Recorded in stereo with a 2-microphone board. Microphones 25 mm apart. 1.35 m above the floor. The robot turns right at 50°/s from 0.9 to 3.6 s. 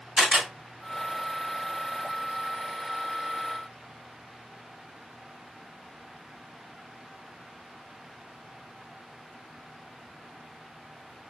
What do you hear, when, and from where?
0.2 s a camera shutter: 30° right (ahead or behind), 2.5 m